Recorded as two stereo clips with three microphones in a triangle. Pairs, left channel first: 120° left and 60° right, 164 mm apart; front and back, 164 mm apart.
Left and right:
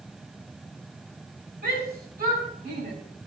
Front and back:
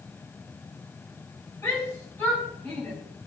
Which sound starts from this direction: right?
A shout, at 1.6 s.